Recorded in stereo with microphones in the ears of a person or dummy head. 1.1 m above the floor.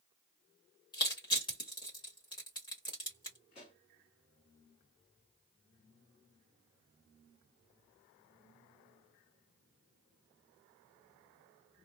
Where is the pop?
40° left (ahead or behind), 1.5 m.